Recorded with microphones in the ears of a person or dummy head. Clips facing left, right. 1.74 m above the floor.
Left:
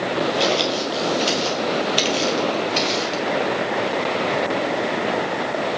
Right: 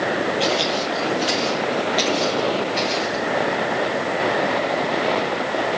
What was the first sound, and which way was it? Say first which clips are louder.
Footsteps: left 1 dB; 40° left (ahead or behind).